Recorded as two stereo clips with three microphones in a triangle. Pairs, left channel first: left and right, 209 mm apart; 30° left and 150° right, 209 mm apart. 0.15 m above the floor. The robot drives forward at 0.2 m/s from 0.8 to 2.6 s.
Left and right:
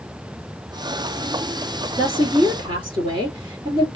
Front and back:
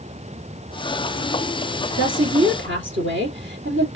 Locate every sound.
2.0 s a woman speaking: 155° right, 3.5 m